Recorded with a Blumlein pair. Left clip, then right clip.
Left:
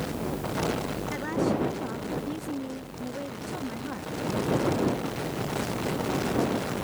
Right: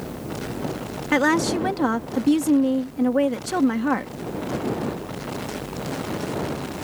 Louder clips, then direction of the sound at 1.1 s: Right 10 dB; 35° right.